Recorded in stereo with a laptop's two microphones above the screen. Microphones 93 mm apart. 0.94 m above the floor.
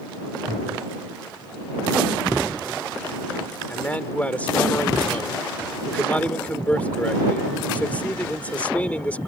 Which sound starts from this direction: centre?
A man speaking, at 3.7 s.